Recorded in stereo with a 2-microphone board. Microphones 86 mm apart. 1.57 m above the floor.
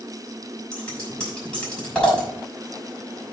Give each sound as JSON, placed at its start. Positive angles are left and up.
{"t": 0.7, "sound": "scissors", "side_deg": 10, "distance_m": 5.5}